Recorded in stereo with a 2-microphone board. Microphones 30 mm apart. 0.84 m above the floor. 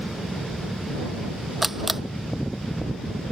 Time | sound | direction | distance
1.6 | a camera shutter | 5° right (ahead or behind) | ?